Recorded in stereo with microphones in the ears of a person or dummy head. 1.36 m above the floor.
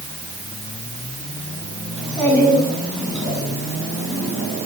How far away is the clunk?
I don't hear a clunk.